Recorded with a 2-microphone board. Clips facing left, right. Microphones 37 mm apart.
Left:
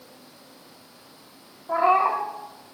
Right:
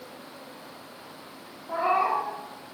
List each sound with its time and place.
1.7 s a cat meowing: 20° left (ahead or behind), 0.7 m